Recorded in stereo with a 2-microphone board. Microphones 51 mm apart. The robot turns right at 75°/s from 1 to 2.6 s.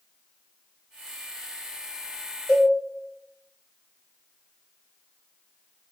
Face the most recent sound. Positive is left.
turn(degrees=70)  # may be behind; listen again after turning